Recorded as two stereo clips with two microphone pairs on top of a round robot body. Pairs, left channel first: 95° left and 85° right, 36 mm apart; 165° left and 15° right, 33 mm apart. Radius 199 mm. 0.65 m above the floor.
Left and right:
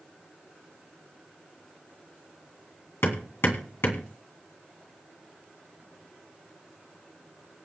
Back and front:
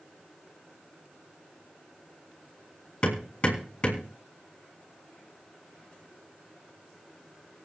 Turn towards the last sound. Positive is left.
turn(degrees=105)